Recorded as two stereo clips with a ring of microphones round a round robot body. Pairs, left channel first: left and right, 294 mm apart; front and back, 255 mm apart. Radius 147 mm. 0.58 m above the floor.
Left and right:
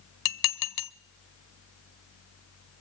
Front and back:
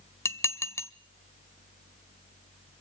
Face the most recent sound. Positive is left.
turn(degrees=80)